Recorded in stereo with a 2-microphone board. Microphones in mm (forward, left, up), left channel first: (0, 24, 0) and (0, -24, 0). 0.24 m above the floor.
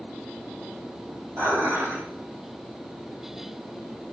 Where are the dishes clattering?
80° right, 6.5 m.